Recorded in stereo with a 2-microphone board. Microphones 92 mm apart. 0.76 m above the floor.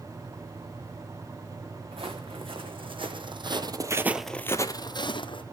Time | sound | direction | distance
1.9 | footsteps | 80° right | 3.5 m